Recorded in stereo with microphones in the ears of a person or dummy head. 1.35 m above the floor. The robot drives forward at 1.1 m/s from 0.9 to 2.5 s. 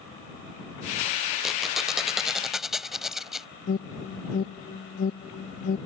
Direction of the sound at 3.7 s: 45° left (ahead or behind).